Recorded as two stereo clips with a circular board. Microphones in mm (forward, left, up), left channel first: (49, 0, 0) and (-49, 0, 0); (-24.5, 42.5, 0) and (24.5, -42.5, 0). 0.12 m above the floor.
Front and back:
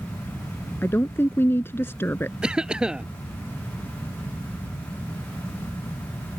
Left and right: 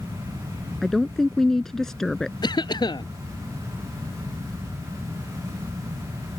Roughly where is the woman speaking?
Ahead left.